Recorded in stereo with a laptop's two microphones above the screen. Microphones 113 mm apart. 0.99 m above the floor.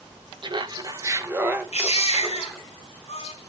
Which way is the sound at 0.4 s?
45° right (ahead or behind).